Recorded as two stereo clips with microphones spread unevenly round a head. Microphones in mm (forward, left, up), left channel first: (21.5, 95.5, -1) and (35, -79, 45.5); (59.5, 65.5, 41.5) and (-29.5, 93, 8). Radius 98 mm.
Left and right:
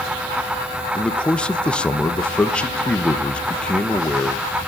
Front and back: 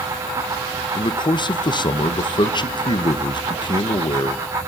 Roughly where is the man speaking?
Ahead left.